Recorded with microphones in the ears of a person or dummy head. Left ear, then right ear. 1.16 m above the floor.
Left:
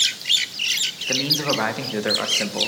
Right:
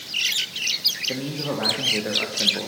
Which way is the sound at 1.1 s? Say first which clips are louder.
Left 7 dB; 45° left (ahead or behind).